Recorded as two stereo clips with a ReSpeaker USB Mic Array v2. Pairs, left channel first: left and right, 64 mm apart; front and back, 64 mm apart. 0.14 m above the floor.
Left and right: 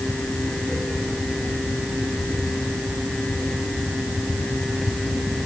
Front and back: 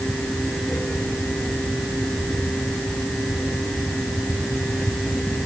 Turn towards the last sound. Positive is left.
No sound to turn to.